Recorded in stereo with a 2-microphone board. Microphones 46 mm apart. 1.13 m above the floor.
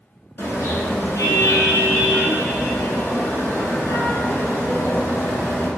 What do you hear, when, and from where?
0.4 s a car horn: 70° left (ahead or behind), 8 m; by 5.7 s 90° left, 9 m